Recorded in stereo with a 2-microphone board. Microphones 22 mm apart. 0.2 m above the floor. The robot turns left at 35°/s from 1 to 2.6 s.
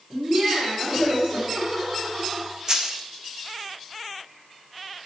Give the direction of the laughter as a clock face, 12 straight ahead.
4 o'clock.